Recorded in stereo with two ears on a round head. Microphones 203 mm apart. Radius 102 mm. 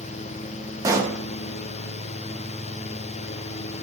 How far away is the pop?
About 0.9 m.